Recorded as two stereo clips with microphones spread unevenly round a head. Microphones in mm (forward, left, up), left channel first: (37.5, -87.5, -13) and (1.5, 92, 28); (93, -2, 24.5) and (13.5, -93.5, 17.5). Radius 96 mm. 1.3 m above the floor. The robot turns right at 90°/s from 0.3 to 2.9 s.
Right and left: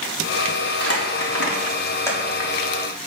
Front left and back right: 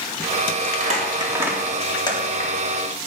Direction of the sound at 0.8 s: 120° right.